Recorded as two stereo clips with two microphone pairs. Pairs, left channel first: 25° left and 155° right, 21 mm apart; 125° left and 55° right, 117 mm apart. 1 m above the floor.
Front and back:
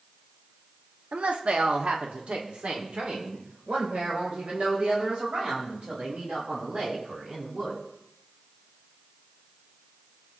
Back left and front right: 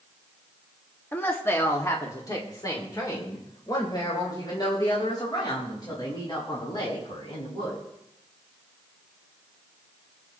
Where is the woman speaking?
160° right, 1.1 m; by 7.8 s 175° left, 6.5 m.